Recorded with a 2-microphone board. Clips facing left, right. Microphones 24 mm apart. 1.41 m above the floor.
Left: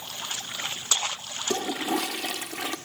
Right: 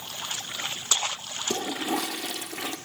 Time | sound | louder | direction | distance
1.5 | a toilet flushing | left 1 dB | 60° left (ahead or behind) | 0.8 m